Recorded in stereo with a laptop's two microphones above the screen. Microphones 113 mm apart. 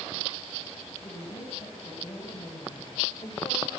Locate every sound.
1.0 s a woman speaking: 55° left (ahead or behind), 7 m; by 3.7 s 40° left (ahead or behind), 3.5 m